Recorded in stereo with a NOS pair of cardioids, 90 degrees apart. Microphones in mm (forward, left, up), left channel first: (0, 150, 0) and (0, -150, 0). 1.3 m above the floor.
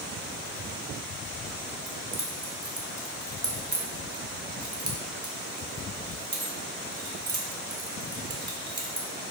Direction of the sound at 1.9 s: 30° right.